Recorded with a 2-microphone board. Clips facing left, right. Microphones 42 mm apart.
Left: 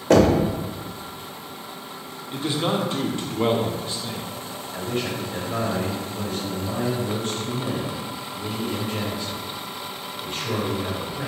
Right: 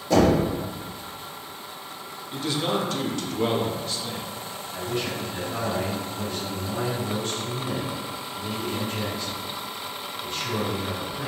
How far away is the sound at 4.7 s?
About 0.9 m.